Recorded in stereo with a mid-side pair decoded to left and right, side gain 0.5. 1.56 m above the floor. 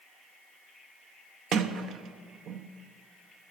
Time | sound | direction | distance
1.5 | a sliding door | 65° right | 0.8 m